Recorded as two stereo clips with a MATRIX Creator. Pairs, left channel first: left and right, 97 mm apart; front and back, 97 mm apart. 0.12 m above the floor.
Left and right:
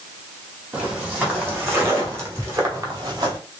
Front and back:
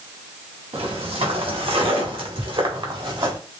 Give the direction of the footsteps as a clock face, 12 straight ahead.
5 o'clock.